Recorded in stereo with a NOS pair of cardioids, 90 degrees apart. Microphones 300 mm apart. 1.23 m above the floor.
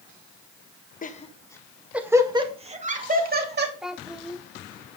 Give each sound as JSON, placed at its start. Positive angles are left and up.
{"t": 1.0, "sound": "laughter", "azimuth_deg": 30, "distance_m": 1.5}
{"t": 3.8, "sound": "a child speaking", "azimuth_deg": 0, "distance_m": 1.2}